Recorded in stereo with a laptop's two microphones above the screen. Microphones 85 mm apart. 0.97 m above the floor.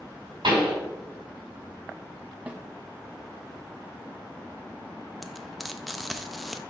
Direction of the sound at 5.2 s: Centre (ahead or behind).